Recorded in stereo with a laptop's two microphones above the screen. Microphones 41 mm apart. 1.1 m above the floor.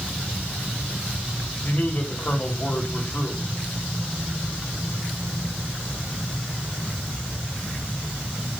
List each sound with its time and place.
1.6 s a man speaking: 35° left (ahead or behind), 2.5 m